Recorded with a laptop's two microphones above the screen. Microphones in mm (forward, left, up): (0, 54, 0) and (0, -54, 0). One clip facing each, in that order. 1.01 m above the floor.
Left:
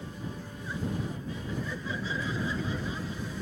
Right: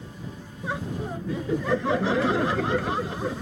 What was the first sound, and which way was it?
Laughter, 70° right (ahead or behind).